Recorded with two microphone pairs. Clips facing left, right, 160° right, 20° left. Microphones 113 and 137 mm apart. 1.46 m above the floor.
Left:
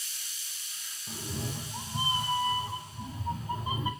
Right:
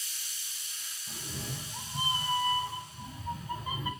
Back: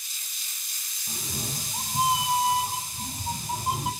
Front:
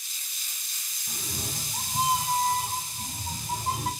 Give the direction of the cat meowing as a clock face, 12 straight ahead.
8 o'clock.